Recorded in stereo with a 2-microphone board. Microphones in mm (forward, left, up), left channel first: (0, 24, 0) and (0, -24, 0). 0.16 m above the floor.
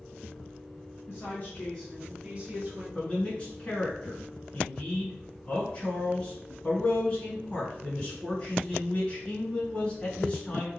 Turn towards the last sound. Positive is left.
turn(degrees=25)  # may be behind; listen again after turning